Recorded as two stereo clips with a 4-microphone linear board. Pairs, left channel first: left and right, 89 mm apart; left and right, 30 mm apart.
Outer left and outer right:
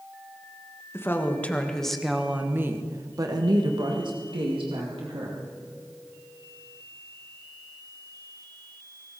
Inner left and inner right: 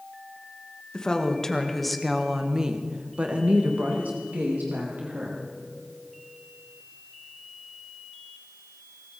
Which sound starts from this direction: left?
A woman speaking, at 0.9 s.